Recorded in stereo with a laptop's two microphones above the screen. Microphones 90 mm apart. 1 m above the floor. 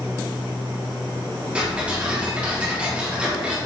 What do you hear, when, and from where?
1.6 s ticking: 15° right (ahead or behind), 2.5 m